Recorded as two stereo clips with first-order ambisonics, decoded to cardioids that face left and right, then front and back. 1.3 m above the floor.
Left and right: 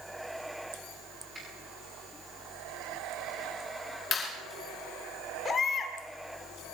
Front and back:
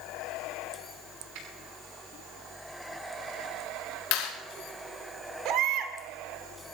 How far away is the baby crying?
About 1.6 m.